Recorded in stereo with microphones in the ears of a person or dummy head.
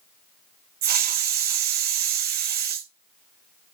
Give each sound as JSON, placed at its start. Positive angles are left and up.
{"t": 0.8, "sound": "a hiss", "side_deg": -45, "distance_m": 1.1}